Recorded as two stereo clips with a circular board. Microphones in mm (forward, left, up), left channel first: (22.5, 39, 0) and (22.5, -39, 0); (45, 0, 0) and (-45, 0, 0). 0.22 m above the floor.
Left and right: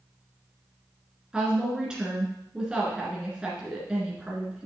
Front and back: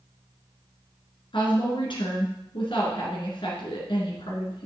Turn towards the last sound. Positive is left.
turn(degrees=-10)